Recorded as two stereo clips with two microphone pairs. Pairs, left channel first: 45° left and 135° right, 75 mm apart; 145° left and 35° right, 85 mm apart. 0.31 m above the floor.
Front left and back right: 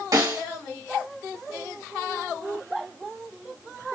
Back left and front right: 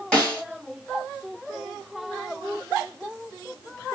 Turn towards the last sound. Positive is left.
turn(degrees=-140)